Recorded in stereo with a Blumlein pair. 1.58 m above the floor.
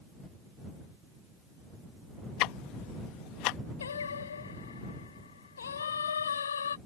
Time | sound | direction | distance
2.4 | ticking | 40° left | ?
3.8 | singing | 70° left | ?